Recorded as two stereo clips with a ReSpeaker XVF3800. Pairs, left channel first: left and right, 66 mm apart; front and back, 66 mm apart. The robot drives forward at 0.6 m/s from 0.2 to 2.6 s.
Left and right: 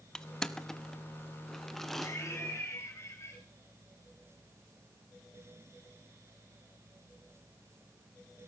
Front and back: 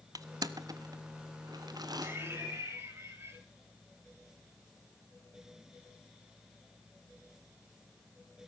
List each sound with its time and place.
0.1 s crushing: 170° left, 0.7 m; by 2.1 s 175° left, 1.8 m
2.0 s laughter: 130° left, 6.5 m; by 3.4 s 135° left, 6.5 m